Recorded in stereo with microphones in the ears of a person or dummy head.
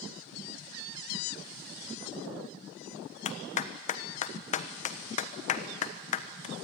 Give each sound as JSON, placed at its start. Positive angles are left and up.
{"t": 3.2, "sound": "a clap", "side_deg": 40, "distance_m": 1.3}